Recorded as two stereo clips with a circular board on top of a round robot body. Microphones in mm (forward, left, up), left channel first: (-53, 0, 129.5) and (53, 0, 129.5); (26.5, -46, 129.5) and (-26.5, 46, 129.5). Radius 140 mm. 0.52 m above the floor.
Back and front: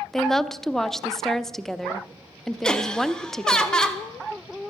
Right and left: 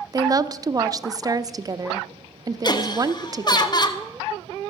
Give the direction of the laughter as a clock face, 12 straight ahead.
3 o'clock.